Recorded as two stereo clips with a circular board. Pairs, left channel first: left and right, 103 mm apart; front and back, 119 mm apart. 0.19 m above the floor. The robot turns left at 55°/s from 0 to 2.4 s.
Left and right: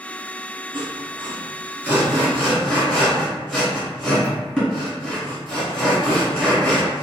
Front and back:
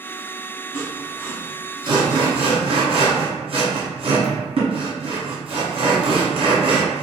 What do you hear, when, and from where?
0.7 s sawing: 95° right, 1.5 m; by 7.0 s 170° left, 1.5 m